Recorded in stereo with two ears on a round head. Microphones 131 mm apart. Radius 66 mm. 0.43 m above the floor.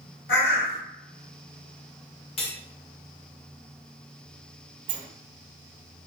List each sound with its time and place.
0.3 s a bird: 70° left (ahead or behind), 1.2 m
2.4 s cutlery clinking: 40° left (ahead or behind), 0.7 m
4.9 s a sliding door: 40° right (ahead or behind), 0.8 m